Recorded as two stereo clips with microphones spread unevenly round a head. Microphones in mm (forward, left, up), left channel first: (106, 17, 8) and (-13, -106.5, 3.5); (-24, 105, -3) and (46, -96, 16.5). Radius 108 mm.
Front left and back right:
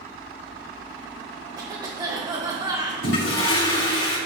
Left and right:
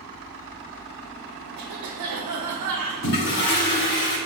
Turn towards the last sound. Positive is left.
turn(degrees=75)